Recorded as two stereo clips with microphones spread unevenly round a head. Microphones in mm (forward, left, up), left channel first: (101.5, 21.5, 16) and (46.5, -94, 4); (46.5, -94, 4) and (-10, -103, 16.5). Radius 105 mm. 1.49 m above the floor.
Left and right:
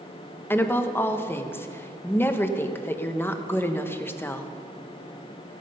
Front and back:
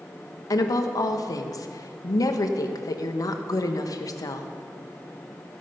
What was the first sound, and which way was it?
A woman speaking, 5° right.